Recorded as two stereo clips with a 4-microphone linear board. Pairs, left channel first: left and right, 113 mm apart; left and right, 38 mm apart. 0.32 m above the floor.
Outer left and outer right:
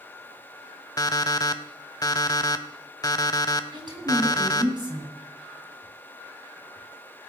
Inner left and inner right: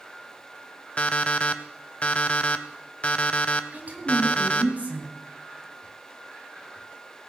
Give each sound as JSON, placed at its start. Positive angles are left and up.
{"t": 1.0, "sound": "an alarm clock", "side_deg": 35, "distance_m": 0.6}
{"t": 3.7, "sound": "a woman speaking", "side_deg": -40, "distance_m": 2.5}